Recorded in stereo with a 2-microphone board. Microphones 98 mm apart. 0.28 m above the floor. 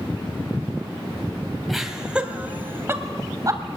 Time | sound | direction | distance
1.7 | laughter | centre (ahead or behind) | 1.9 m